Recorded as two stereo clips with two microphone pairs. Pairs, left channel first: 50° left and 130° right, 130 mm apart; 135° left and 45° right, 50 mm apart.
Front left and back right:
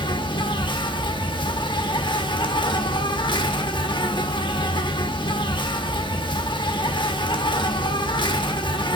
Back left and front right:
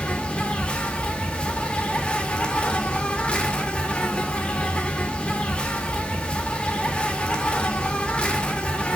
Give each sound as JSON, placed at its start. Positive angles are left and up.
{"t": 0.0, "sound": "an insect", "azimuth_deg": 75, "distance_m": 1.1}